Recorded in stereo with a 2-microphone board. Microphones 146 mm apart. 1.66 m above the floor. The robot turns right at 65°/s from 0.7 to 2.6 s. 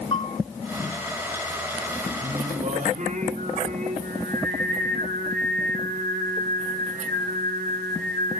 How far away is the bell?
About 4.5 m.